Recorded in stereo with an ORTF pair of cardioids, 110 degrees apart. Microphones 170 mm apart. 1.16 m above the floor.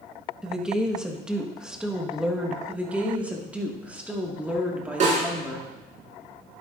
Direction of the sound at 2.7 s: 10° right.